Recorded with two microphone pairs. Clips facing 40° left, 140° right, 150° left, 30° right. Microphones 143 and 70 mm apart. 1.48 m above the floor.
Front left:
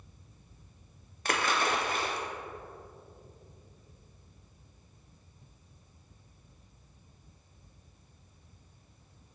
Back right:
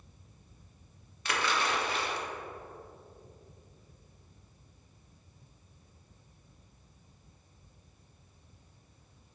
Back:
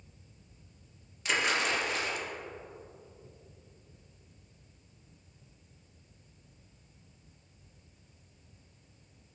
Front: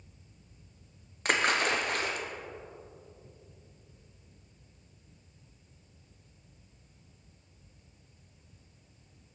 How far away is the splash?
About 0.9 m.